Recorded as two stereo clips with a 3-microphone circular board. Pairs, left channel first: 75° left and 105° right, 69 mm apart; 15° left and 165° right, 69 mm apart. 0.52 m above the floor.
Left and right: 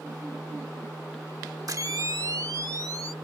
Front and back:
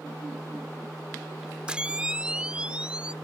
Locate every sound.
1.7 s a camera shutter: 95° right